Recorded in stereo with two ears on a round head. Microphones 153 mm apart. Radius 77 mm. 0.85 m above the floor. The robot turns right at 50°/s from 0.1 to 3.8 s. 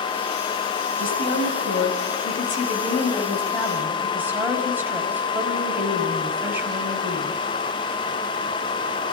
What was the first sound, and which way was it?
A woman speaking, 50° left.